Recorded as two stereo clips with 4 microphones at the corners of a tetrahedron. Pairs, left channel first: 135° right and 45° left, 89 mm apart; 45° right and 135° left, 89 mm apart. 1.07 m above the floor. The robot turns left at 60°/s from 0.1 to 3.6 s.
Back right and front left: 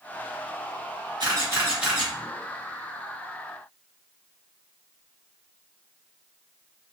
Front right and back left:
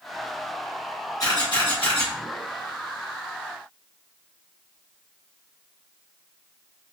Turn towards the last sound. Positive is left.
turn(degrees=-140)